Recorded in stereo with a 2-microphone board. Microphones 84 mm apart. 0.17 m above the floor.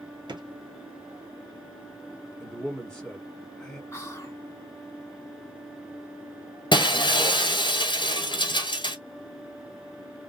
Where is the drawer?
65° right (ahead or behind), 1.0 m.